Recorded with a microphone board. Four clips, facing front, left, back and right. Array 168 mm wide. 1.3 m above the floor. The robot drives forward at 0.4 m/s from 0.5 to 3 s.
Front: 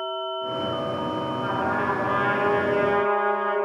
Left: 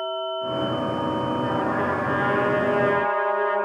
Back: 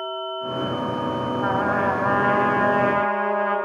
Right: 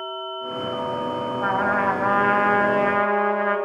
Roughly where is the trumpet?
Behind right.